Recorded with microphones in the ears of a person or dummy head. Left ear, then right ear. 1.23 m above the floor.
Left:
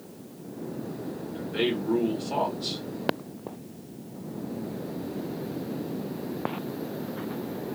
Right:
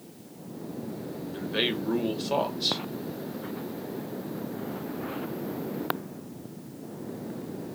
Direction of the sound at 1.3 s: 35° right (ahead or behind).